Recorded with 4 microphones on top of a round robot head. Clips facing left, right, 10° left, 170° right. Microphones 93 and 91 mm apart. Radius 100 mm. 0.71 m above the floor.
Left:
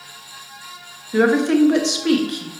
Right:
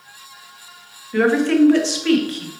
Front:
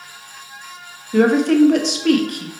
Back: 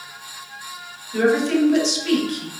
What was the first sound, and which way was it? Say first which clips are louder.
A woman speaking: even, front 4 dB; 20° left.